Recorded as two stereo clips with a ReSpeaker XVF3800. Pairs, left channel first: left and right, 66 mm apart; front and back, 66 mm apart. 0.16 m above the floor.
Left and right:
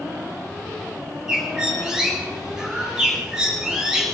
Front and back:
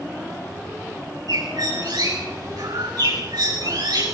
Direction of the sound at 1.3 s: 170° right.